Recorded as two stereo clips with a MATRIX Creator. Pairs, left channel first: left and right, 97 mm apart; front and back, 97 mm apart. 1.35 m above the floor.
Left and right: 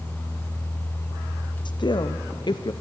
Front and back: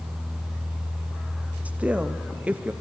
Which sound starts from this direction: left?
A woman speaking, at 1.6 s.